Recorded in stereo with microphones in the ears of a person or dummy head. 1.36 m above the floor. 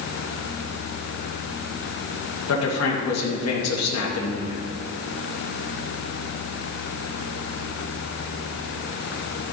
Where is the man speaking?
85° left, 1.4 m.